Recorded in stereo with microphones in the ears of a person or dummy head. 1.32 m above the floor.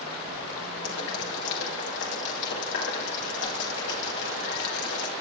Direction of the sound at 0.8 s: 65° left (ahead or behind).